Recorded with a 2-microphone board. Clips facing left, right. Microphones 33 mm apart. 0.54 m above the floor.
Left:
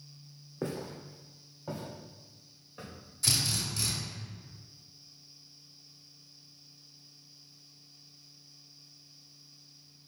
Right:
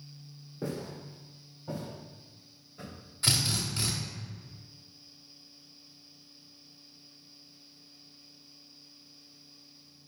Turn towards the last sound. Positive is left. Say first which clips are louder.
# right 2 dB
turn(degrees=-30)  # may be behind; listen again after turning